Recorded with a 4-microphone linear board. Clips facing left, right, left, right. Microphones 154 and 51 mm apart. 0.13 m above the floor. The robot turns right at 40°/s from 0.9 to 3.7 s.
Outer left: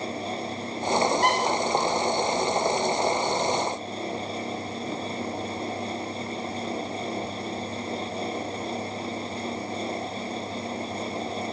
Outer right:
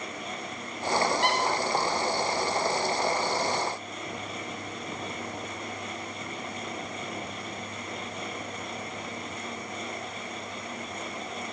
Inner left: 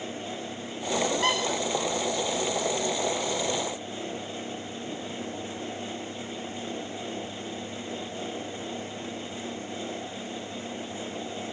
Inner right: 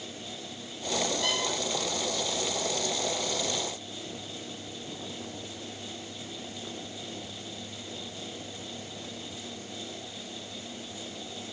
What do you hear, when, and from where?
1.2 s a squeak: 45° left (ahead or behind), 8 m; by 1.4 s 50° left (ahead or behind), 8 m